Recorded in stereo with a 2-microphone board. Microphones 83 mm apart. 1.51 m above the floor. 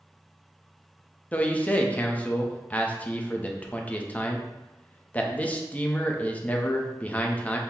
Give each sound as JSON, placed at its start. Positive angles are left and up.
{"t": 1.3, "sound": "a man speaking", "side_deg": 20, "distance_m": 0.6}